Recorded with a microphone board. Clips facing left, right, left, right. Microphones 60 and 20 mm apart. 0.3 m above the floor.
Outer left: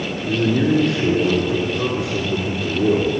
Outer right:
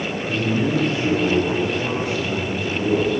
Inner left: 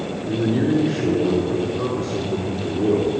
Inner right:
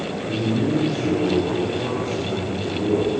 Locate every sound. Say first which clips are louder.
0.2 s a man speaking: outer left 5 dB, inner left 3 dB; 70° left (ahead or behind), 4 m